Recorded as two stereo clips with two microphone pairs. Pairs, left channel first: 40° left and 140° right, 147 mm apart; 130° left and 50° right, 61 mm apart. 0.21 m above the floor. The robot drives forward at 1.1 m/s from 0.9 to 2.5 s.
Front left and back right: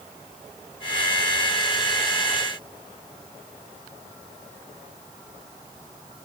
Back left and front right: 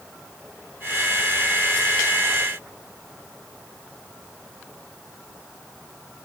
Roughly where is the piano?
I don't hear a piano.